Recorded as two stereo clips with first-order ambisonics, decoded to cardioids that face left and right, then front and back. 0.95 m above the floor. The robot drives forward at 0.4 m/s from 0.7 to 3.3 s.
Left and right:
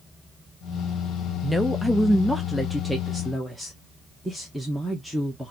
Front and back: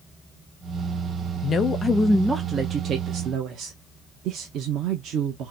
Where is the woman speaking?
5° right, 0.6 m; by 5.5 s straight behind, 0.7 m.